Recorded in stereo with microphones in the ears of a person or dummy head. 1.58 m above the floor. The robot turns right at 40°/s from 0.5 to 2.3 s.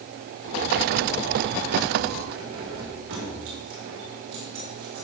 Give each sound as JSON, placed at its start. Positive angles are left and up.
{"t": 2.3, "sound": "keys jangling", "side_deg": -80, "distance_m": 4.0}